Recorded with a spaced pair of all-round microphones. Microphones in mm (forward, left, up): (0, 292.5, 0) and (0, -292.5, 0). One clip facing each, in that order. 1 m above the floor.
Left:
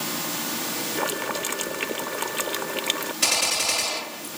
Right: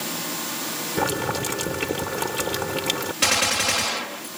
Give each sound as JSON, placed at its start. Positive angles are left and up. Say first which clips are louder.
{"t": 1.0, "sound": "boiling", "louder": "right 6 dB", "side_deg": -60}
{"t": 3.2, "sound": "a gunshot", "louder": "right 4 dB", "side_deg": -75}